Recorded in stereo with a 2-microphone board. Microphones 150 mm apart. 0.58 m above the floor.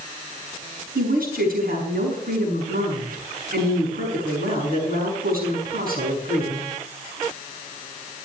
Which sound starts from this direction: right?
A woman speaking, at 0.9 s.